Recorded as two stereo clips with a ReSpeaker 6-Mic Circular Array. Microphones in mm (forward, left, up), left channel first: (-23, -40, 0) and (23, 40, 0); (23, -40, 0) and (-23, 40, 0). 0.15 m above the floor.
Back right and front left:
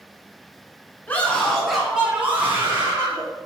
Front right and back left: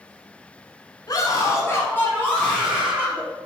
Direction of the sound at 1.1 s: 55° right.